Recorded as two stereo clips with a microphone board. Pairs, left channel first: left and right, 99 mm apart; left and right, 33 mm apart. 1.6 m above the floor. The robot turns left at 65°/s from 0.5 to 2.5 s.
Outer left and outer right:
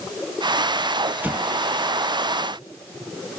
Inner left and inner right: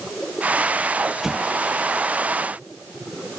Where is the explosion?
20° right (ahead or behind); by 1.5 s 5° right (ahead or behind).